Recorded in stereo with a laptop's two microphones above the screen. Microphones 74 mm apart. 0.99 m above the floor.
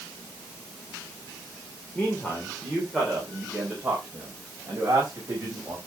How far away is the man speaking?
About 3 m.